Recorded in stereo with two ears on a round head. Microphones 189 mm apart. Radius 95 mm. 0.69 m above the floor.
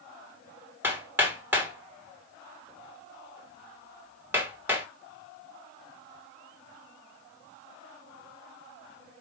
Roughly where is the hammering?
Centre.